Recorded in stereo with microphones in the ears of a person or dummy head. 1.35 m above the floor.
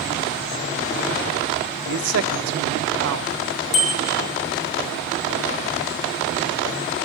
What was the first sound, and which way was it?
A man speaking, 65° right (ahead or behind).